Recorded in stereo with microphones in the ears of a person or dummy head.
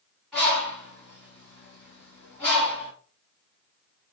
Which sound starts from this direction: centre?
A bird, at 0.3 s.